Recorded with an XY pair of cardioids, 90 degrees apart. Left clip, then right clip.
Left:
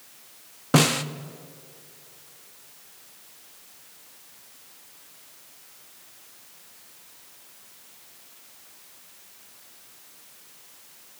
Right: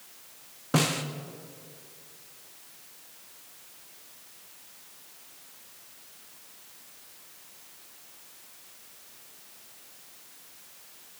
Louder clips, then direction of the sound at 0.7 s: Left 6 dB; 45° left.